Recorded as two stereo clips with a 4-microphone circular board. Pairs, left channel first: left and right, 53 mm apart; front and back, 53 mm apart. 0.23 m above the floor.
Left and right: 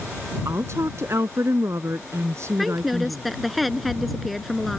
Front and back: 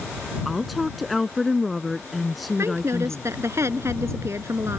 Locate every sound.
0.5 s a woman speaking: 90° right
2.6 s a woman speaking: straight behind